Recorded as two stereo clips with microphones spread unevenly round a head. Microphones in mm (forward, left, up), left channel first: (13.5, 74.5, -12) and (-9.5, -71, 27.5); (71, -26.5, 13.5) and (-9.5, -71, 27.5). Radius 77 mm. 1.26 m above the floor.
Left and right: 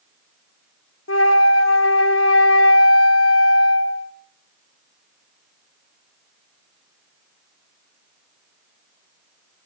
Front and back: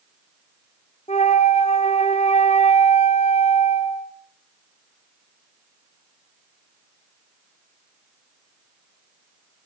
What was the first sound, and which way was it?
A flute, 85° left.